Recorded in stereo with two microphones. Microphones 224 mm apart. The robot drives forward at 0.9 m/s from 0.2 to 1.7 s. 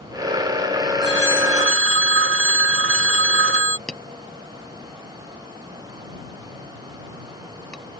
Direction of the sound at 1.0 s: 50° right (ahead or behind).